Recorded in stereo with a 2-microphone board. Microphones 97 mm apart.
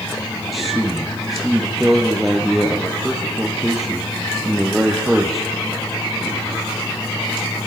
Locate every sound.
0.5 s a man speaking: centre (ahead or behind), 3 m